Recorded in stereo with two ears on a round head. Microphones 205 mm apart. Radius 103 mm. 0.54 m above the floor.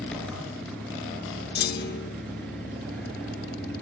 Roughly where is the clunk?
Left.